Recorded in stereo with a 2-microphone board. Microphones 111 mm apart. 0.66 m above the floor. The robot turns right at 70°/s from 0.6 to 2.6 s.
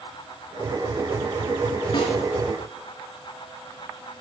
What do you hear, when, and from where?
1.9 s a snare drum: 45° left (ahead or behind), 5 m; by 2.1 s 60° left (ahead or behind), 5 m